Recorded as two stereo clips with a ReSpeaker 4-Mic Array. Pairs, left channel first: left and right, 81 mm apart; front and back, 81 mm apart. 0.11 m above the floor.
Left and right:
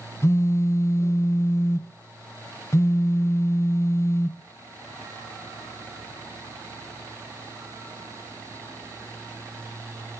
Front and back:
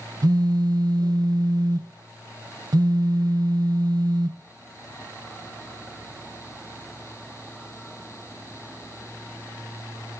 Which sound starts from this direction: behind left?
A phone buzzing, at 0.2 s.